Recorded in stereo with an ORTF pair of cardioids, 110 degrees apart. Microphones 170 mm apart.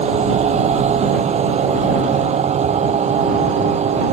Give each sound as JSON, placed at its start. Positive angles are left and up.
{"t": 0.0, "sound": "a machine running", "azimuth_deg": -40}